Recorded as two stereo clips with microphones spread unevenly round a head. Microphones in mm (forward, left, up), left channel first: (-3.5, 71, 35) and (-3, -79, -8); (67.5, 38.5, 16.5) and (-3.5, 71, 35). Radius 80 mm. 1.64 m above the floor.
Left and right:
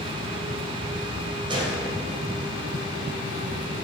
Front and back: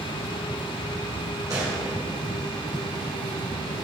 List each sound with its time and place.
1.5 s a gunshot: 155° right, 2.5 m